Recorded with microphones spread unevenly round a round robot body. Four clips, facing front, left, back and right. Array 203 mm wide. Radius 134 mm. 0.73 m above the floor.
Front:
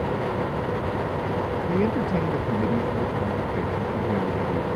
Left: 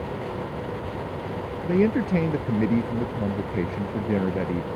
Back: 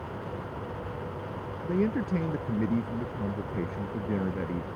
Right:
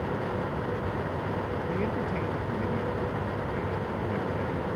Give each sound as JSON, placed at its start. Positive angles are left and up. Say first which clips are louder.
{"t": 1.6, "sound": "a man speaking", "louder": "left 13 dB, front 2 dB", "azimuth_deg": 105}